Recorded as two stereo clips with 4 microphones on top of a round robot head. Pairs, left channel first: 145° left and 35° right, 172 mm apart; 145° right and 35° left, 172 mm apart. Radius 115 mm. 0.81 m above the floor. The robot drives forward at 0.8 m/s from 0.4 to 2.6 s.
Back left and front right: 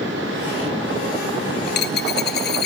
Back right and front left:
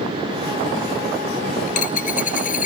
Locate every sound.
1.7 s a dropped coin: 170° left; by 2.7 s 175° left